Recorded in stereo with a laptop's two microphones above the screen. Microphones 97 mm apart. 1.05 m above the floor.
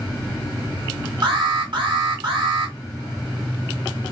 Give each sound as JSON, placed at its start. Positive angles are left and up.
{"t": 1.2, "sound": "an alarm", "side_deg": -55, "distance_m": 2.0}